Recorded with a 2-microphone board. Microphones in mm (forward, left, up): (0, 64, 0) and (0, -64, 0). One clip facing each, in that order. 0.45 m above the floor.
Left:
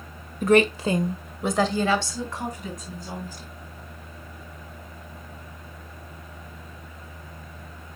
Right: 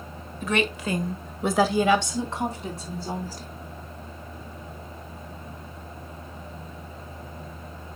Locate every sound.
0.4 s a woman speaking: 50° left (ahead or behind), 1.4 m; by 3.5 s 35° right (ahead or behind), 3.5 m